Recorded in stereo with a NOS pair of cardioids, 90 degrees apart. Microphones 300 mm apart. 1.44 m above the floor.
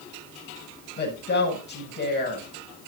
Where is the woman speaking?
35° left, 7 m.